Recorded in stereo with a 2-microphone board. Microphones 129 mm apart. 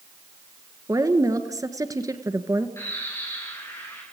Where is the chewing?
No chewing in this recording.